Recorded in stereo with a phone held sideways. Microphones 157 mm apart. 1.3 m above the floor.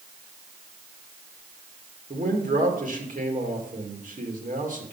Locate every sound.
2.1 s a man speaking: 65° right (ahead or behind), 2 m